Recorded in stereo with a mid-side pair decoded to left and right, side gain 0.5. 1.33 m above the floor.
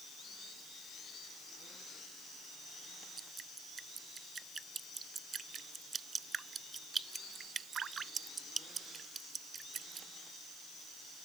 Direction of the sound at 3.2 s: 35° right.